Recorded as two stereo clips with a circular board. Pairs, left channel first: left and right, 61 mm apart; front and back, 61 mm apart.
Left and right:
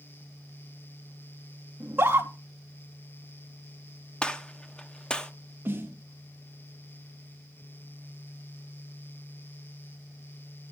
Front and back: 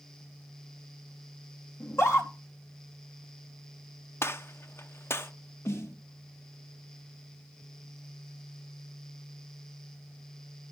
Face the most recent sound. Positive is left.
turn(degrees=-40)